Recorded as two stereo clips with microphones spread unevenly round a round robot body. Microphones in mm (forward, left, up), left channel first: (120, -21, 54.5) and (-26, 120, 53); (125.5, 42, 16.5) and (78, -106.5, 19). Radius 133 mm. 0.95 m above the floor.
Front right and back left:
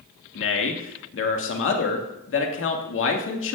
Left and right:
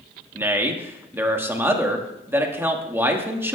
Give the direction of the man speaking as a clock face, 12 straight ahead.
1 o'clock.